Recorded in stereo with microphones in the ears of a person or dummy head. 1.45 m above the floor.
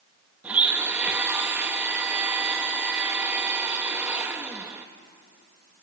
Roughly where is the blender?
Centre.